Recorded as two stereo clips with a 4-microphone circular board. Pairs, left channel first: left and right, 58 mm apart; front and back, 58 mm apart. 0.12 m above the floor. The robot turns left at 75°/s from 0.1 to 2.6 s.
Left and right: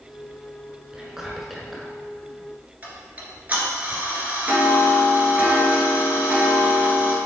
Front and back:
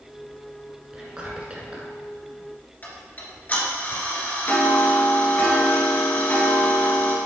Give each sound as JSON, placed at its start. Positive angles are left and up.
{"t": 0.9, "sound": "whispering", "azimuth_deg": -135, "distance_m": 1.6}
{"t": 2.8, "sound": "ticking", "azimuth_deg": -40, "distance_m": 1.7}